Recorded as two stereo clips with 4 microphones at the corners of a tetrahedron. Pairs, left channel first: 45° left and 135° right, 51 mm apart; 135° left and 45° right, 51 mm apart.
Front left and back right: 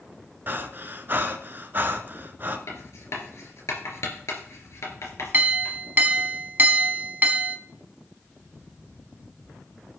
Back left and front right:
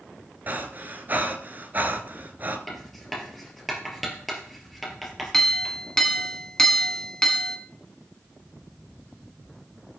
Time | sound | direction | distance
0.5 | breathing | 95° right | 1.1 m
2.7 | writing | 45° left | 3 m
5.3 | a clink | 150° right | 1.3 m